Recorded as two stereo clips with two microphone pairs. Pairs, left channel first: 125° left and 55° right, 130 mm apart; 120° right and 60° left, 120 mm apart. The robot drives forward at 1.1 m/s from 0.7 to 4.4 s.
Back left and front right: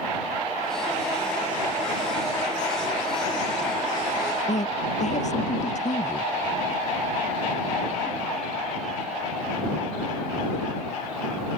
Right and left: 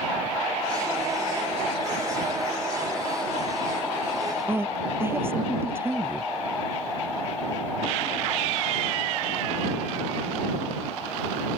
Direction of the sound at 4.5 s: 130° left.